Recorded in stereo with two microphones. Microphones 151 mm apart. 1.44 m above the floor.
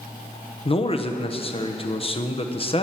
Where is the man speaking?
35° left (ahead or behind), 0.9 m.